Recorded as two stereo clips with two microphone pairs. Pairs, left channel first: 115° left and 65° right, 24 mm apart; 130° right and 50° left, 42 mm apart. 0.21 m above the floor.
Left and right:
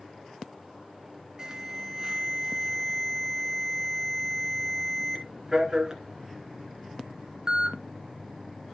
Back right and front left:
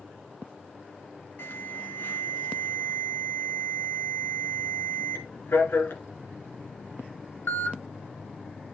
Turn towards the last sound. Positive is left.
turn(degrees=-130)